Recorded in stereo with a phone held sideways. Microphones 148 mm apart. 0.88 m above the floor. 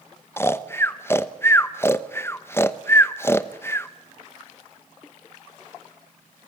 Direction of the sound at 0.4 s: 15° left (ahead or behind).